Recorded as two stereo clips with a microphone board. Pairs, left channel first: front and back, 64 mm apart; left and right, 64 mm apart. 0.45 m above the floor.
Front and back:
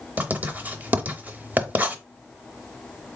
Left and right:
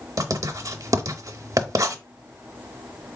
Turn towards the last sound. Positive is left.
turn(degrees=-120)